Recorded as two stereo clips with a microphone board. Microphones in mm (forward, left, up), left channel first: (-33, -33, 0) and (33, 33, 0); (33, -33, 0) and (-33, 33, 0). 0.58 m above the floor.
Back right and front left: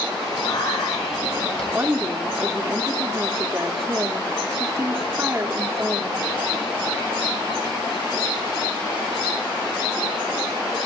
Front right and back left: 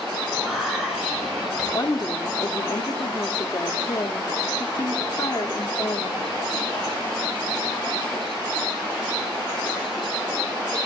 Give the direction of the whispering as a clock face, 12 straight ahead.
5 o'clock.